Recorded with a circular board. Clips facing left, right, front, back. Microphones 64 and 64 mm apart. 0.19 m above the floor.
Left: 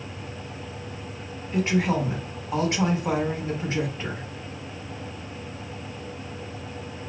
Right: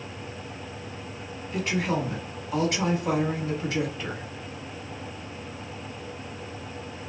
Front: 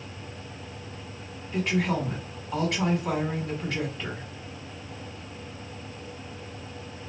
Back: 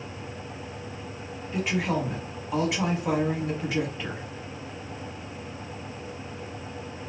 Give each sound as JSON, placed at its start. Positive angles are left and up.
{"t": 1.5, "sound": "a woman speaking", "azimuth_deg": 110, "distance_m": 1.3}